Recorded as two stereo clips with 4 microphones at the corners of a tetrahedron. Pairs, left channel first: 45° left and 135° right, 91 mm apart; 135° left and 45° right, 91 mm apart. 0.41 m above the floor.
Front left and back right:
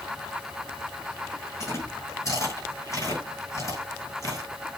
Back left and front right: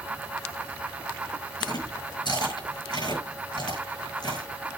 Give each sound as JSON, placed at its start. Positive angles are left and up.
{"t": 1.6, "sound": "chewing", "azimuth_deg": 100, "distance_m": 6.5}